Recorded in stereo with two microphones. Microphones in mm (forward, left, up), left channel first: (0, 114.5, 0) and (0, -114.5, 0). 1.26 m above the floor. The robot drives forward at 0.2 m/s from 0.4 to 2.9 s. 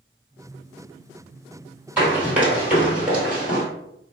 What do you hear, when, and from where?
2.0 s running footsteps: 10° right (ahead or behind), 1.8 m; by 3.6 s 5° right (ahead or behind), 1.3 m